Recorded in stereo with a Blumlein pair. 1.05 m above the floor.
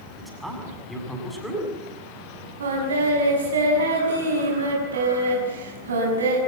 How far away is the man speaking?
About 7 m.